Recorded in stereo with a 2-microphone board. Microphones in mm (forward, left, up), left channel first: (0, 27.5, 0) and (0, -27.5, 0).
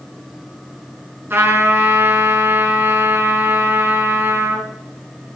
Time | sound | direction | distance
1.3 | a trumpet | 45° right (ahead or behind) | 5 m